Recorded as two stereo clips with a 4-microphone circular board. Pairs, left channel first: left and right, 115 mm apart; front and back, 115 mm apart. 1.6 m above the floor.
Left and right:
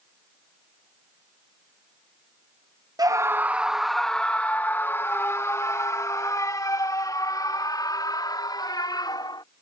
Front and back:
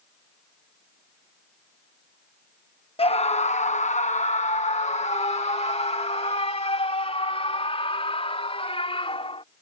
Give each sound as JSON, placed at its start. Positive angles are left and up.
{"t": 3.0, "sound": "a scream", "azimuth_deg": -35}